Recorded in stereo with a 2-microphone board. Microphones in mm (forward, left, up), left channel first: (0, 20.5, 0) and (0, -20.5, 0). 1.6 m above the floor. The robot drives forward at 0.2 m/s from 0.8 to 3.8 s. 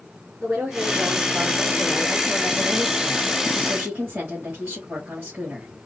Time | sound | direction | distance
0.4 | a woman speaking | 70° right (ahead or behind) | 1.6 m